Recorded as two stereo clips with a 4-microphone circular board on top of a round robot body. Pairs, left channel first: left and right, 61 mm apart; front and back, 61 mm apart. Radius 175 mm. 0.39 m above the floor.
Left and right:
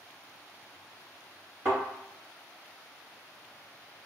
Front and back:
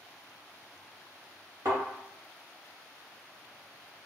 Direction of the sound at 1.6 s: 150° right.